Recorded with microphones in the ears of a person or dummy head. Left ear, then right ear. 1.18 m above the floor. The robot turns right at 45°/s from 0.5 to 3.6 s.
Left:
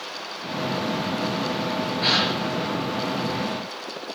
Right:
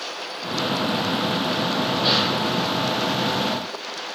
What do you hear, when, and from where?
2.0 s a gasp: 80° left, 6 m; by 2.3 s 70° left (ahead or behind), 6 m